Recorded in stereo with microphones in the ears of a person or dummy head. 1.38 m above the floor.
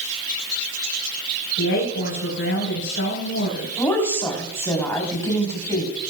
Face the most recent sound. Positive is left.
turn(degrees=15)  # may be behind; listen again after turning